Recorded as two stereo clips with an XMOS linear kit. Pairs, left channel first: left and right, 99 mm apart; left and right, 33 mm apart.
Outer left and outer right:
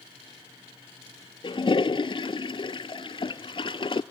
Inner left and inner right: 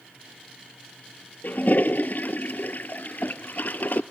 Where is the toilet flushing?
60° left (ahead or behind), 0.5 m.